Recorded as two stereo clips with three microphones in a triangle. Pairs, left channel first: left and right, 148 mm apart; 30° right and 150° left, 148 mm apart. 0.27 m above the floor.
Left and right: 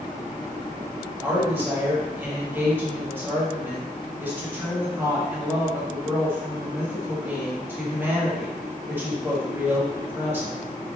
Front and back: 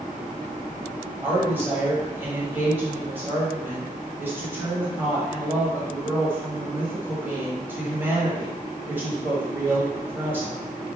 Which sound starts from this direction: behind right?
A woman speaking, at 1.2 s.